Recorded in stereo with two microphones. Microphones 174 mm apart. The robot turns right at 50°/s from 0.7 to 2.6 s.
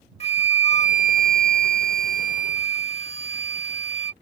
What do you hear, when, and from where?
0.2 s a flute: 40° left; by 4.1 s 135° left